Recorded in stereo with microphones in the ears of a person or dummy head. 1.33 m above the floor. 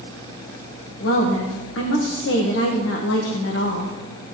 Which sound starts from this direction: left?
A woman speaking, at 1.0 s.